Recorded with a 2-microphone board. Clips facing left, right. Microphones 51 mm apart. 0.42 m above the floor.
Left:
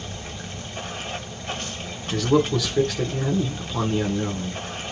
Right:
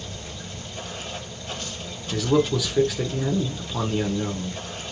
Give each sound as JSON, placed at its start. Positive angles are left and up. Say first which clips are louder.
{"t": 0.0, "sound": "running water", "louder": "left 2 dB", "side_deg": 50, "distance_m": 1.3}
{"t": 2.1, "sound": "a man speaking", "louder": "left 1 dB", "side_deg": -5, "distance_m": 0.8}